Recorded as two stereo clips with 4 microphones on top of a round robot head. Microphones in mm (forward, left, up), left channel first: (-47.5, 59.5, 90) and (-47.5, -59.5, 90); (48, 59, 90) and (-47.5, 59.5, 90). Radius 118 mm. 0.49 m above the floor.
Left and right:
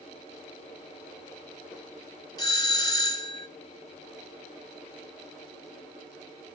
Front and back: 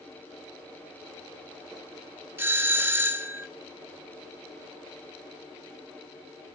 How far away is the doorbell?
About 2 m.